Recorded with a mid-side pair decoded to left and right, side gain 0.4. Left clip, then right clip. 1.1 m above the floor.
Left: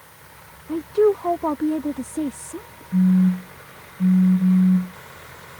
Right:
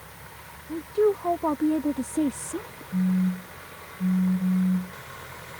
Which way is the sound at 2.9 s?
60° left.